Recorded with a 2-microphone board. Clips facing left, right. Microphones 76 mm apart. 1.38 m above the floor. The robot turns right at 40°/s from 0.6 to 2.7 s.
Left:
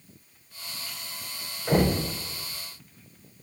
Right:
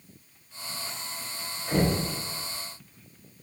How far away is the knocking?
About 3.5 m.